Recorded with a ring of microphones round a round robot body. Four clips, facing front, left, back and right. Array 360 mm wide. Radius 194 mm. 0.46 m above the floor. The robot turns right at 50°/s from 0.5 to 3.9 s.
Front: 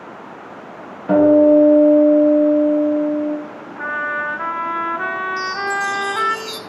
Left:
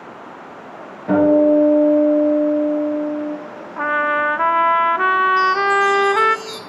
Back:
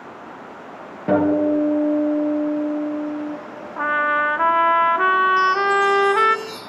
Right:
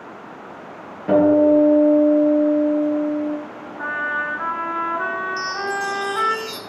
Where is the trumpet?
110° left, 0.5 m; by 6.4 s 115° left, 0.5 m.